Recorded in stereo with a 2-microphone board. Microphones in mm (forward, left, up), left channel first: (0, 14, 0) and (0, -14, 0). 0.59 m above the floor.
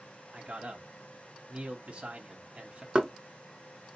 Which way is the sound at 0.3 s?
45° right (ahead or behind).